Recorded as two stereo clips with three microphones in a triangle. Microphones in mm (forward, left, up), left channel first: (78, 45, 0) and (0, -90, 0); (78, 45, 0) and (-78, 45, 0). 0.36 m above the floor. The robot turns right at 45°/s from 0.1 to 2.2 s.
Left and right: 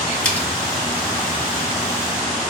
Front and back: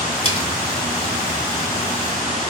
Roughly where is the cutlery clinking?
Ahead.